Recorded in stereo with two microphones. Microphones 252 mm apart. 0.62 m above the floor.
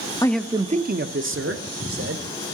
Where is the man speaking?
15° left (ahead or behind), 0.6 m; by 2.2 s 65° right (ahead or behind), 1.8 m.